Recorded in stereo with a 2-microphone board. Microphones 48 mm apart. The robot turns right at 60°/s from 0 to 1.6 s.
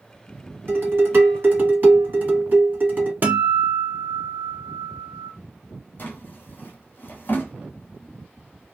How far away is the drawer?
About 1.1 m.